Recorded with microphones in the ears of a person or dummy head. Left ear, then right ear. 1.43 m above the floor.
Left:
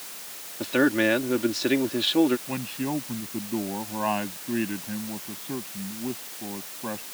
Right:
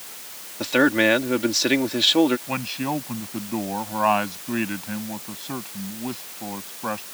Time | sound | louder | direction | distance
0.6 | a man speaking | right 4 dB | 25° right (ahead or behind) | ?
2.5 | a man speaking | right 4 dB | 35° right (ahead or behind) | ?